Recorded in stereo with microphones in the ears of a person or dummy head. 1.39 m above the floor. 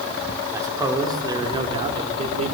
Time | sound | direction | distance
0.5 | a man speaking | 15° right (ahead or behind) | 3.5 m